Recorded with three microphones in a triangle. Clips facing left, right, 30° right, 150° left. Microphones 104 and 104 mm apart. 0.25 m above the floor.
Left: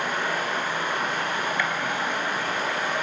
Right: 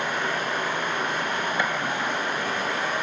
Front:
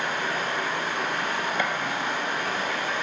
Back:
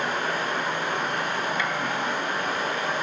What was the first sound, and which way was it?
Running water, 165° left.